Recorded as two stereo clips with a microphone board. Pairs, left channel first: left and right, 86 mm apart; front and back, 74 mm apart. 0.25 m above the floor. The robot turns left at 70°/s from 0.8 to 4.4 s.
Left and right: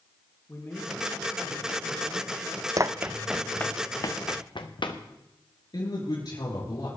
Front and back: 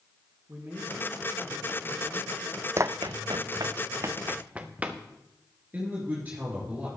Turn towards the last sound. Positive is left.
turn(degrees=115)